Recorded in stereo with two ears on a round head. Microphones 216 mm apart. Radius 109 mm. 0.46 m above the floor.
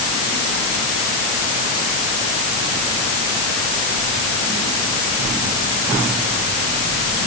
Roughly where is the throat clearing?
I don't hear throat clearing.